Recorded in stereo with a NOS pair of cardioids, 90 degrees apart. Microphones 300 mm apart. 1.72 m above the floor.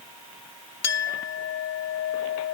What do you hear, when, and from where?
0.8 s a clink: 60° left